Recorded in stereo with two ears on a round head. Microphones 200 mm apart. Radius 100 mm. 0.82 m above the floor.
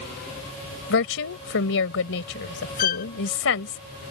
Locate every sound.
0.9 s a woman speaking: 65° left (ahead or behind)
2.8 s a violin: 40° left (ahead or behind)